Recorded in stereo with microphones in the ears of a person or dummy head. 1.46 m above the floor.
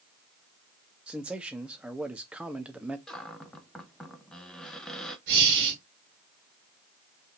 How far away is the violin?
No violin in this recording.